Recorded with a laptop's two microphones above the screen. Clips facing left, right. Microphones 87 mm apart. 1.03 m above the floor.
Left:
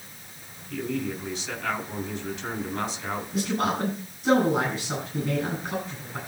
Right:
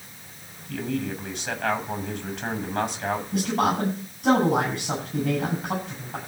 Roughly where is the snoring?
I don't hear snoring.